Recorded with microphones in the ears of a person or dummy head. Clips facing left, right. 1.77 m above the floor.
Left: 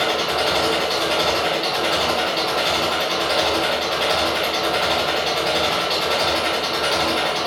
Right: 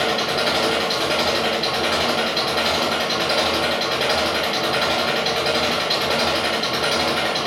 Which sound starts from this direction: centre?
An engine running, at 0.0 s.